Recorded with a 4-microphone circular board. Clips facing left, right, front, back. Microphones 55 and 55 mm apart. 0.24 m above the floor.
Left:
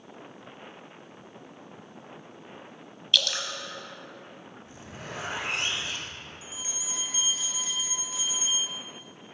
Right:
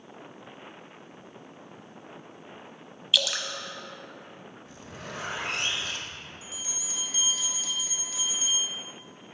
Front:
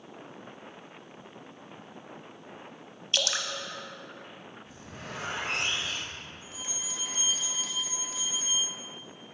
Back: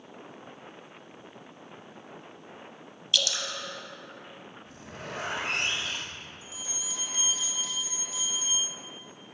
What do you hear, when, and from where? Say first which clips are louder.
3.1 s dripping: even, even; 10° right, 0.7 m
4.7 s a zipper: even, back 3 dB; 155° left, 1.8 m
6.4 s a bell: left 1 dB, even; 30° left, 1.7 m